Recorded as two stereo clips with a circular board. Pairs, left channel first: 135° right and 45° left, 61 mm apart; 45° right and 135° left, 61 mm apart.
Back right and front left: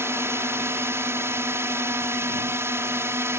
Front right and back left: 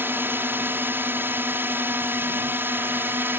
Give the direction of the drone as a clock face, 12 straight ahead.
9 o'clock.